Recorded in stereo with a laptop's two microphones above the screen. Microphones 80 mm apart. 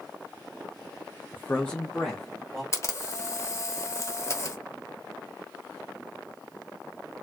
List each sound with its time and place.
1.3 s a man speaking: 30° left (ahead or behind), 0.6 m; by 2.6 s centre (ahead or behind), 2.0 m
2.7 s a camera shutter: 35° left (ahead or behind), 0.8 m